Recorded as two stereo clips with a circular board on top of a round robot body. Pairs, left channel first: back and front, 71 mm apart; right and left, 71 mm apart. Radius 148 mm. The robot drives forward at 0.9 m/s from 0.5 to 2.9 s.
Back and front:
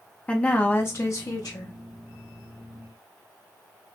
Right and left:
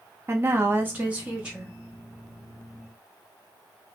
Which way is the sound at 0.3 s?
115° left.